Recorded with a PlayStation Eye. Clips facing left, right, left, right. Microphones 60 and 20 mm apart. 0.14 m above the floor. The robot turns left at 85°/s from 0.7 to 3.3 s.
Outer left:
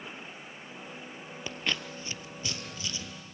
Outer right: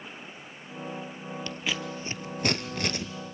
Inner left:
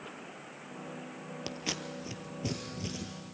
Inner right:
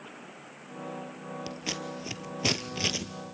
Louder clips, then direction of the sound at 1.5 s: Even, inner right 1 dB; 15° left (ahead or behind).